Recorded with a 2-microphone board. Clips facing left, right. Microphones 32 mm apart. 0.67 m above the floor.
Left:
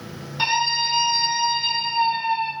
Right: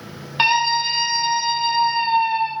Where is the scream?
40° right (ahead or behind), 0.9 m; by 2.5 s 10° left (ahead or behind), 1.2 m.